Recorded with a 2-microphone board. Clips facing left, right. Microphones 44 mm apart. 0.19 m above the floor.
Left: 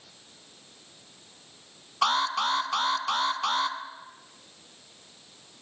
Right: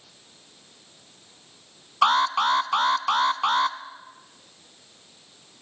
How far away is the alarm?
About 1.3 m.